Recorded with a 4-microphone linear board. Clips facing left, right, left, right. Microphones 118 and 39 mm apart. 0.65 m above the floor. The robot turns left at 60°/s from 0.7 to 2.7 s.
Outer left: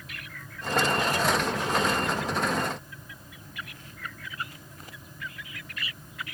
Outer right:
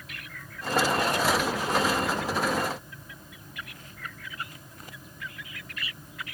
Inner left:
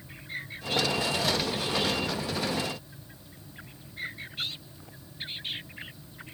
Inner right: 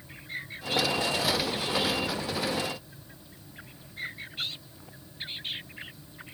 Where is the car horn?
No car horn in this recording.